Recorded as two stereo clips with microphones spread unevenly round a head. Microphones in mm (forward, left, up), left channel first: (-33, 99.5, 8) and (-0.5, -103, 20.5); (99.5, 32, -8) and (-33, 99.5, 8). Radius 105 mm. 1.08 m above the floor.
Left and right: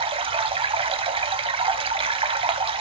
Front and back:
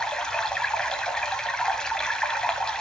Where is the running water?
120° right, 1.0 m.